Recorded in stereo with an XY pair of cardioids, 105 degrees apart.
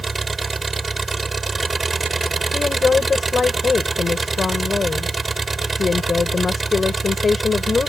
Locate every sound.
0.0 s an engine running: 20° right
2.5 s a woman speaking: 35° left